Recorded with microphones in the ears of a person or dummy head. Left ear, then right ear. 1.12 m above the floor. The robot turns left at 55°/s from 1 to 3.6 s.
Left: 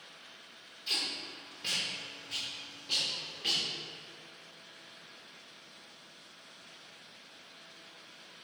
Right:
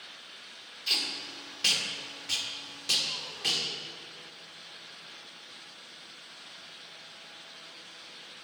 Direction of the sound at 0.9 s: 15° right (ahead or behind).